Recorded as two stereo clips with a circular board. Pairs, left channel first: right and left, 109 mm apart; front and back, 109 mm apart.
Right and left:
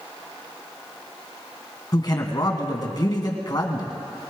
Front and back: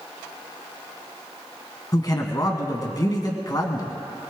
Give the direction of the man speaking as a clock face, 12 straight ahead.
2 o'clock.